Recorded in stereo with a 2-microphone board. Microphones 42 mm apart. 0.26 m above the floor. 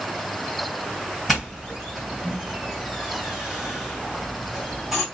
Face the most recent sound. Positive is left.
turn(degrees=0)  # may be behind; listen again after turning